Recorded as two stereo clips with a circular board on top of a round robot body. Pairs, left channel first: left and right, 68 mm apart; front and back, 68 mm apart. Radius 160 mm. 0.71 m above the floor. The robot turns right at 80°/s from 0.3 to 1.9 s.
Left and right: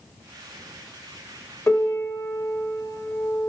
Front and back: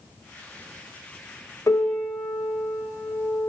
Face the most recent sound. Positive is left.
turn(degrees=60)